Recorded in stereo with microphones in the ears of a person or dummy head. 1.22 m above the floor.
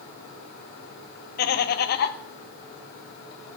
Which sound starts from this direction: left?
Laughter, at 1.4 s.